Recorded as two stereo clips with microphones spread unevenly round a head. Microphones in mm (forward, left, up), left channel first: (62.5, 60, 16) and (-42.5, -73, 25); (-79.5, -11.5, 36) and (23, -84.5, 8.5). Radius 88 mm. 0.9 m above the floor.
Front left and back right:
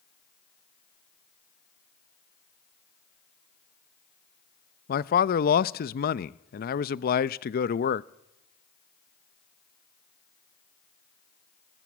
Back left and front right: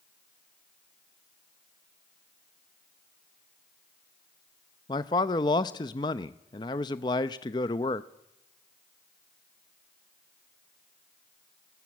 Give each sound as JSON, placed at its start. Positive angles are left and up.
{"t": 4.9, "sound": "a man speaking", "azimuth_deg": 75, "distance_m": 0.6}